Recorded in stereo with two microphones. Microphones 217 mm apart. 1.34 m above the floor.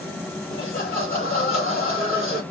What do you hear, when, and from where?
0.5 s laughter: 65° left (ahead or behind), 3 m